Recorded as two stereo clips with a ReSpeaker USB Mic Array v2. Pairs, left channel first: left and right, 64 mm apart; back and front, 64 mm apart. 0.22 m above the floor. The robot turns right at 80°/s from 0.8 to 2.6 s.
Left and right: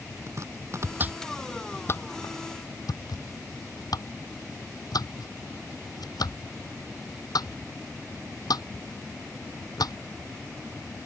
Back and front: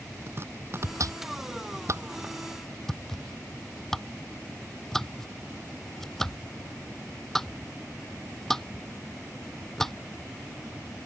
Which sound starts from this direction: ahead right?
Chopping, at 0.3 s.